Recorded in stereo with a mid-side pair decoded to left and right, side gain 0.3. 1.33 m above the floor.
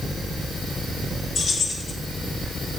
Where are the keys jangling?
65° left, 3 m.